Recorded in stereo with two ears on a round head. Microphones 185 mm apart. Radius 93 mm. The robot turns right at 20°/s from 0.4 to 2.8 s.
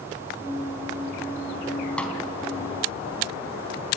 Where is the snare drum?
5° left (ahead or behind), 4 m; by 2.2 s 10° left (ahead or behind), 4 m.